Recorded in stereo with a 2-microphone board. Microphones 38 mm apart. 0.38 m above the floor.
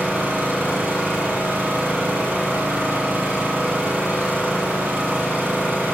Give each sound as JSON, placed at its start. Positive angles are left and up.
{"t": 0.0, "sound": "an engine running", "side_deg": -70, "distance_m": 9.0}